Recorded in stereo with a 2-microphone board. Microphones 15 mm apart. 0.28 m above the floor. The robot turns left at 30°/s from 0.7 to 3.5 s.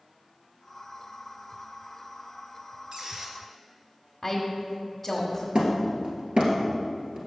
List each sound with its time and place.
2.9 s a squeak: 50° right (ahead or behind), 1.5 m; by 3.4 s 35° right (ahead or behind), 1.5 m
4.2 s a woman speaking: centre (ahead or behind), 1.1 m
5.5 s hammering: 85° right, 1.7 m